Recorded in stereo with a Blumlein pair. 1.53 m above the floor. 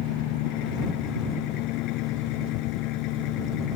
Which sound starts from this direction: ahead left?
An engine running, at 0.0 s.